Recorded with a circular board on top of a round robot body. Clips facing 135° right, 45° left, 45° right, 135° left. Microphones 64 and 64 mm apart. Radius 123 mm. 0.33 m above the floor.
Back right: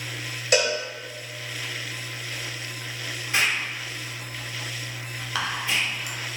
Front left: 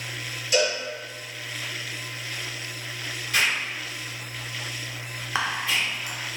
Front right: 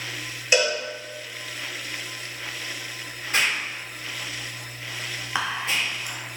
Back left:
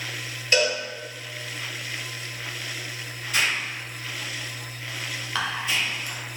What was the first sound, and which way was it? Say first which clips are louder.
A cowbell: back right 1 dB, front right 1 dB; 120° right.